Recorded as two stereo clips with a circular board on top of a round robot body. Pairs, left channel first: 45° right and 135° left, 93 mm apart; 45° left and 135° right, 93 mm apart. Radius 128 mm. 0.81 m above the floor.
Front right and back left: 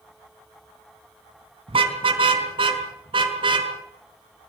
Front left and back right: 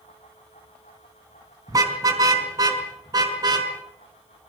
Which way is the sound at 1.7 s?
170° left.